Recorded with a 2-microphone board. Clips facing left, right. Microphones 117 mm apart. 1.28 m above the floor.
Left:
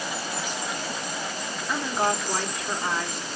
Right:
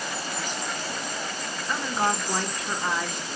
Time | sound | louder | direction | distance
1.7 | a woman speaking | left 1 dB | centre (ahead or behind) | 1.4 m